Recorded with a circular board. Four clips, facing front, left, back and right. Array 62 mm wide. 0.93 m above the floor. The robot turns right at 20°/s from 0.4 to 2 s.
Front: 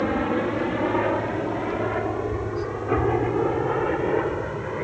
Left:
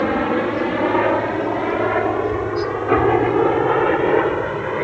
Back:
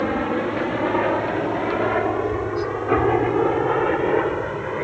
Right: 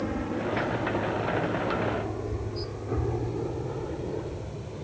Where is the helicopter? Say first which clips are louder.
Left 12 dB, back 1 dB; 100° left; by 4.9 s 105° left.